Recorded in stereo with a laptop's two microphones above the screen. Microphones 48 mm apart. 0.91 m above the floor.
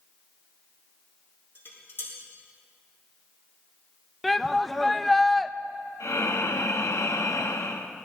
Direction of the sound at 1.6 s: 45° left (ahead or behind).